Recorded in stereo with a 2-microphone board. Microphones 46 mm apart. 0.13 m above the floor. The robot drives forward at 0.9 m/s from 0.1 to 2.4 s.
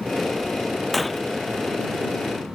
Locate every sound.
0.9 s breaking glass: 5° left (ahead or behind); by 1.2 s centre (ahead or behind)